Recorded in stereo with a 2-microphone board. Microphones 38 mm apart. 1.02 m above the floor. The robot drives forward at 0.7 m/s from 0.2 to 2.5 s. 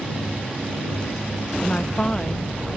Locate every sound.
1.6 s a woman speaking: 45° left (ahead or behind); by 2.5 s 25° left (ahead or behind)